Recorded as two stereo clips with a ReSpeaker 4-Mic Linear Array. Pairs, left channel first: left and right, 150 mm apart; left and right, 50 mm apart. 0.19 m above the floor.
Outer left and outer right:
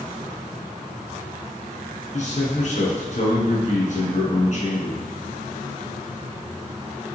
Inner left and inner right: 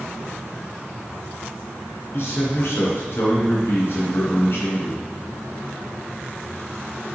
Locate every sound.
2.1 s a man speaking: 55° left (ahead or behind), 2.5 m